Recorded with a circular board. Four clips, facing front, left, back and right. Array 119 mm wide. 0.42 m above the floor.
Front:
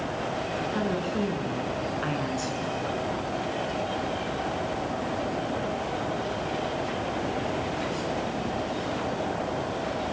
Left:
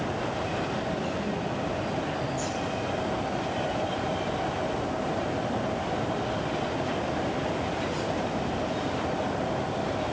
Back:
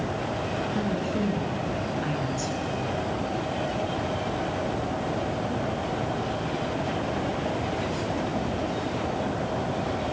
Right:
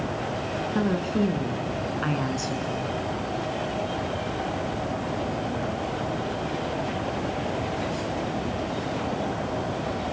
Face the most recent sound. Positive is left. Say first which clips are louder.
# right 6 dB, even
turn(degrees=-75)